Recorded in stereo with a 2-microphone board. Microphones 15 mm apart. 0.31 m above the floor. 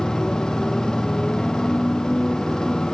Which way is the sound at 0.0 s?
60° left (ahead or behind).